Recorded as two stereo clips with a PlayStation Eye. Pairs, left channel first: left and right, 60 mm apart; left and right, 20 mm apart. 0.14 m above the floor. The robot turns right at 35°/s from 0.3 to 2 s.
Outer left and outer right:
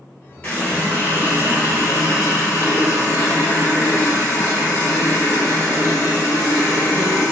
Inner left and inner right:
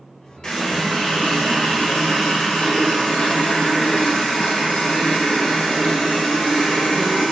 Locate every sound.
0.4 s a running tap: 30° left, 1.7 m; by 7.3 s 85° left, 1.7 m